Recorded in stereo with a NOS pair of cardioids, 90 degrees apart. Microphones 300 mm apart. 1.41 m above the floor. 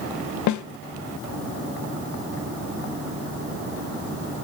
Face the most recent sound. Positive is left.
turn(degrees=65)